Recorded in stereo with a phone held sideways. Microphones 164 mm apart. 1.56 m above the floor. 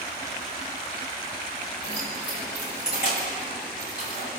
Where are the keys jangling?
85° left, 5.5 m.